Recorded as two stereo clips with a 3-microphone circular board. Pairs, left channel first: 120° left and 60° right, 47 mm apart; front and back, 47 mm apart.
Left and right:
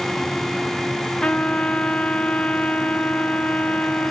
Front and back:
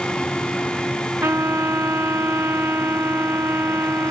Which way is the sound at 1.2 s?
170° right.